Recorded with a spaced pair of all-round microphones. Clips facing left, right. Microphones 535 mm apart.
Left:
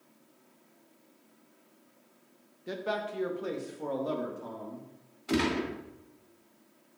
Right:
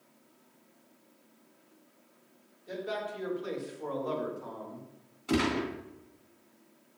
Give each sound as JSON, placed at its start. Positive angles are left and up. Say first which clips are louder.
{"t": 2.7, "sound": "a man speaking", "louder": "left 2 dB", "side_deg": 85, "distance_m": 1.6}
{"t": 5.3, "sound": "a gunshot", "louder": "even", "side_deg": -15, "distance_m": 2.5}